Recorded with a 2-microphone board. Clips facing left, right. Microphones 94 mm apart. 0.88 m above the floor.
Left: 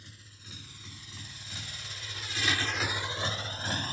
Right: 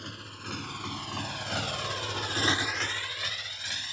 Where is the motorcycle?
70° right (ahead or behind); by 3.9 s 45° left (ahead or behind).